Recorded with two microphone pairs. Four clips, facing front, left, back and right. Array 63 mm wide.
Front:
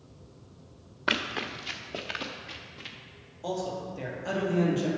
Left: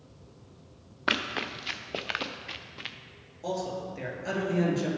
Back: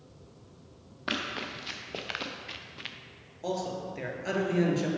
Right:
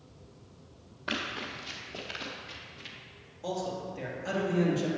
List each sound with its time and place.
1.1 s running footsteps: 60° left, 0.9 m; by 3.0 s 120° left, 1.0 m
3.4 s a man speaking: 165° left, 2 m